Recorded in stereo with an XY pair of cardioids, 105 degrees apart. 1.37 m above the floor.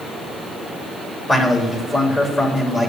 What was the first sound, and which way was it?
A man speaking, 30° left.